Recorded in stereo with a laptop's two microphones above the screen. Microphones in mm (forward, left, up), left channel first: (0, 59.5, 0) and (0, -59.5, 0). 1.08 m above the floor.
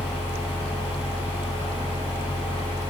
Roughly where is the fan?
Centre.